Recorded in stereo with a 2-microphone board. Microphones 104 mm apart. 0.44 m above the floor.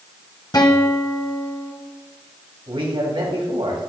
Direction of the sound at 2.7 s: 65° right (ahead or behind).